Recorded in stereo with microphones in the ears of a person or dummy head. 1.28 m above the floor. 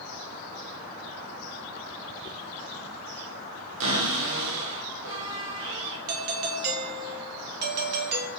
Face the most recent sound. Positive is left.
turn(degrees=-50)  # may be behind; listen again after turning